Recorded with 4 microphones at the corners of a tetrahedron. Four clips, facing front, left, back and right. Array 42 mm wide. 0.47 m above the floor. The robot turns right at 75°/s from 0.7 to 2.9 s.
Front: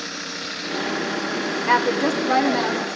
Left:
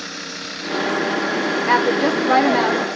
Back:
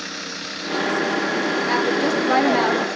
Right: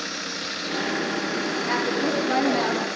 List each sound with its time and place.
1.7 s a woman speaking: 55° left, 0.9 m; by 2.9 s 140° left, 0.9 m